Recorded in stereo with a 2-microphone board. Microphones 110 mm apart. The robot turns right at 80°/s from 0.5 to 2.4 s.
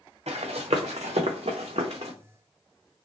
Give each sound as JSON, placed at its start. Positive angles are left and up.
{"t": 0.3, "sound": "running footsteps", "side_deg": -85, "distance_m": 1.0}